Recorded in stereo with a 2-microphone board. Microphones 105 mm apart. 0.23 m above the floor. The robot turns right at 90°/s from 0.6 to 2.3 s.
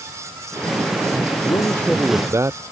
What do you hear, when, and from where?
1.4 s a man speaking: 130° left; by 2.6 s 155° right